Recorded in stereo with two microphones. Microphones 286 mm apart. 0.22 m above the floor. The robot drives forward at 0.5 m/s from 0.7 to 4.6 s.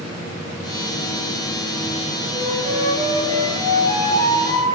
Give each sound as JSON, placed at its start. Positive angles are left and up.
{"t": 2.3, "sound": "a flute", "side_deg": -20, "distance_m": 4.5}